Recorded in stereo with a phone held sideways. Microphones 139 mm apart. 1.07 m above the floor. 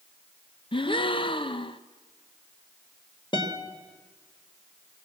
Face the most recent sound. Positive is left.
turn(degrees=35)  # may be behind; listen again after turning